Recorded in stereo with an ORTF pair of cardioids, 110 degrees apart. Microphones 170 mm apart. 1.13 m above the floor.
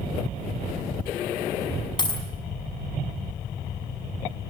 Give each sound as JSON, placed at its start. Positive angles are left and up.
{"t": 2.0, "sound": "a dropped coin", "azimuth_deg": 25, "distance_m": 5.5}